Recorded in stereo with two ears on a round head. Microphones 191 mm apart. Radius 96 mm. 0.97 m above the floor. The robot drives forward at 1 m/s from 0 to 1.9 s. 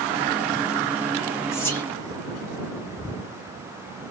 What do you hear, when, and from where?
1.5 s whispering: 15° left (ahead or behind), 2 m; by 1.9 s 10° left (ahead or behind), 2.5 m